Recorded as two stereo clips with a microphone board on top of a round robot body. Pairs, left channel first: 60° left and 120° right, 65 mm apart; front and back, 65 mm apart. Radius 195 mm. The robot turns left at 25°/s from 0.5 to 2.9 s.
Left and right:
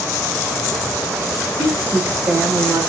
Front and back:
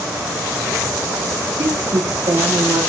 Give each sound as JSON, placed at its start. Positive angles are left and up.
{"t": 1.5, "sound": "a woman speaking", "azimuth_deg": -175, "distance_m": 2.5}